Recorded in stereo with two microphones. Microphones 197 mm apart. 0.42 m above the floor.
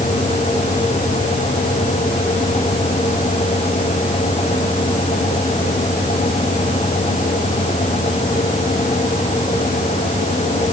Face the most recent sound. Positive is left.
No sound to turn to.